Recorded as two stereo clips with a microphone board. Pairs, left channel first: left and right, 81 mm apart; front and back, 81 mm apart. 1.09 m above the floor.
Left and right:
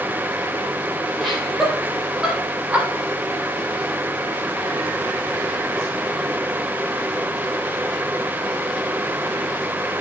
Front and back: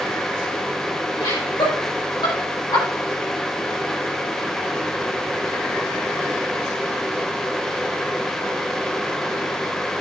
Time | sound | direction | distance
1.2 | laughter | 5° left | 3.5 m